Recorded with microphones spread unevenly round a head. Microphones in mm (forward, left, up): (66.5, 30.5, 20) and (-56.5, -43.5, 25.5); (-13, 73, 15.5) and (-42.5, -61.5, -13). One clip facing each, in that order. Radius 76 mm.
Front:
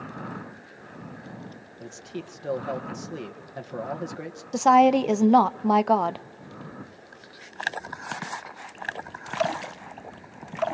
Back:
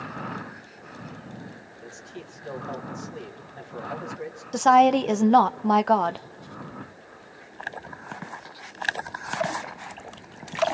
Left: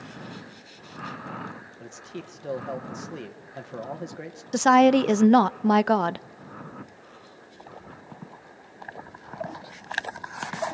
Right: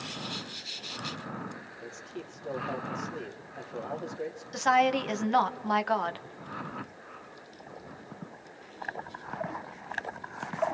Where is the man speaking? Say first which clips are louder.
Front 6 dB, left 3 dB; 50° left, 1.8 m.